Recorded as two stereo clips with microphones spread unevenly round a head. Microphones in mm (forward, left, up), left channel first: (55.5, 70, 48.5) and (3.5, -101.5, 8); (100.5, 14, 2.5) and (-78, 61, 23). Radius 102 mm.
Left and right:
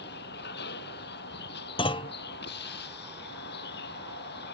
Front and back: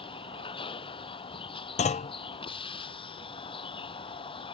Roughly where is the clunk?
Ahead left.